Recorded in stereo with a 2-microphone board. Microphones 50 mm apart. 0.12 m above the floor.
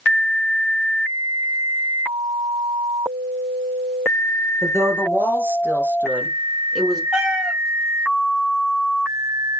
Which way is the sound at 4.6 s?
60° right (ahead or behind).